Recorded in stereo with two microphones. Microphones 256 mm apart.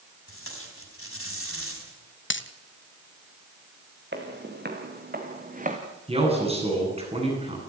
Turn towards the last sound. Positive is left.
turn(degrees=-25)  # may be behind; listen again after turning